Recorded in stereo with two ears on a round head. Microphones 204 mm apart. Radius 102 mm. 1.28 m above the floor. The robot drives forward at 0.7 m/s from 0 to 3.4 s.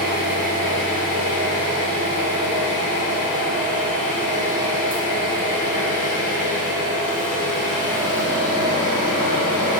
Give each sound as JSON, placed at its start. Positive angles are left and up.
{"t": 0.0, "sound": "an engine running", "side_deg": -45, "distance_m": 0.9}